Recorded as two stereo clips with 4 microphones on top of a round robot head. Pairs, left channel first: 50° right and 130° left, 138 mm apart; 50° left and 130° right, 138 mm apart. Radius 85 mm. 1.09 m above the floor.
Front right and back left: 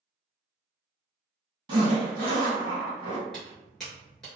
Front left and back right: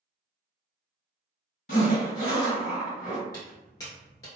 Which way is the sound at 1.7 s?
75° left.